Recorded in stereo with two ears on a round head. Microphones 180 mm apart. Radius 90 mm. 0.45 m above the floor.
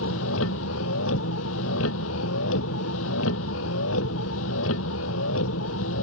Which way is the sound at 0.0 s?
75° left (ahead or behind).